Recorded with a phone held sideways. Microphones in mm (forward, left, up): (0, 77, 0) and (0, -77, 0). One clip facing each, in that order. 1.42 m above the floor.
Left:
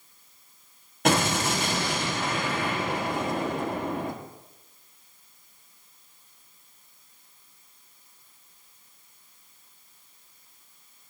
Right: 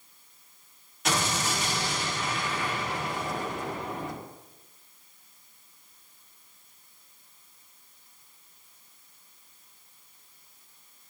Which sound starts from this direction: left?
An explosion, at 1.1 s.